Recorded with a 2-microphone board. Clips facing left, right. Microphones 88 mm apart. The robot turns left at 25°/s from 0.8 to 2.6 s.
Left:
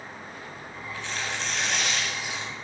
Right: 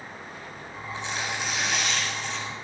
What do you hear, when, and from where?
0.9 s tearing paper: 155° right, 8 m; by 2.5 s 165° left, 8 m